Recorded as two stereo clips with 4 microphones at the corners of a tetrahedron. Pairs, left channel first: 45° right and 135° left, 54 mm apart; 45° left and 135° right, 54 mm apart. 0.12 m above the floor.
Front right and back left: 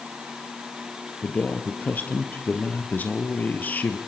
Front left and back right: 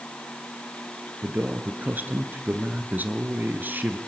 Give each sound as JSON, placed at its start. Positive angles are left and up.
{"t": 1.2, "sound": "a man speaking", "azimuth_deg": -95, "distance_m": 2.5}